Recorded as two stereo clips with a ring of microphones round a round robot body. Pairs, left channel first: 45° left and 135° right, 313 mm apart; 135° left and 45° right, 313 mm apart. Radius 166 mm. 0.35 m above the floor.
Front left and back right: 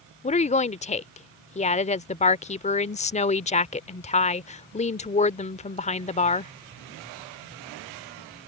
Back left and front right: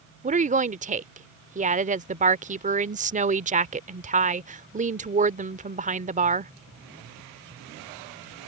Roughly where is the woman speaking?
Ahead.